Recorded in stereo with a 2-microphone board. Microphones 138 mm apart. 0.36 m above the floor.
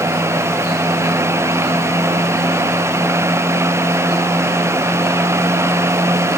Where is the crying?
I don't hear crying.